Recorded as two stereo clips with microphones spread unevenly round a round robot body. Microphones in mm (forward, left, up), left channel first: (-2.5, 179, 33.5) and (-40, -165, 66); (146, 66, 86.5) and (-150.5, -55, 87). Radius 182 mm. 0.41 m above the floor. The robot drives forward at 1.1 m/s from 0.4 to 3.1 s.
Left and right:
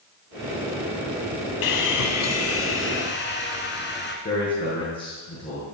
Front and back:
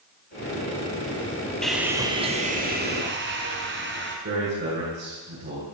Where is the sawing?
110° left, 1.7 m; by 4.2 s 145° left, 2.5 m.